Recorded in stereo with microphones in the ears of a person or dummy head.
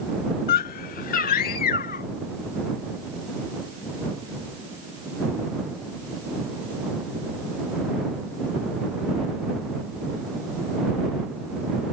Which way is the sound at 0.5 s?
45° left (ahead or behind).